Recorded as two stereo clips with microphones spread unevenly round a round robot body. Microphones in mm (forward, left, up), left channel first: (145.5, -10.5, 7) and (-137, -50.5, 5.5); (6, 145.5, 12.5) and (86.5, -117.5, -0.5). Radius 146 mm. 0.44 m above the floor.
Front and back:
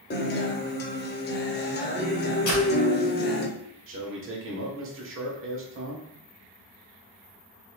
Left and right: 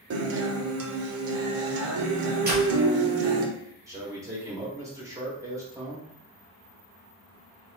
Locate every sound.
0.1 s a guitar: 45° right, 0.6 m
2.5 s a door slam: 20° right, 1.9 m
3.9 s a man speaking: 145° right, 1.1 m